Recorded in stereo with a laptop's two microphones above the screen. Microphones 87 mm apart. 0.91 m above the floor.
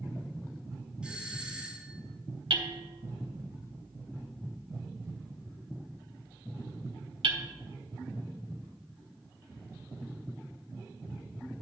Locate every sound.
1.0 s a doorbell: 10° right (ahead or behind), 2.5 m
2.5 s hammering: 75° right (ahead or behind), 1.1 m